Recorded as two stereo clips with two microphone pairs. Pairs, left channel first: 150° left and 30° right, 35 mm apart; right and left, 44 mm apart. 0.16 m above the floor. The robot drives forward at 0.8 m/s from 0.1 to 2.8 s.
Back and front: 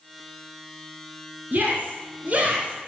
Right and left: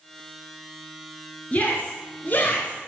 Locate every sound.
1.5 s a shout: 40° right, 3 m; by 2.8 s 65° right, 2.5 m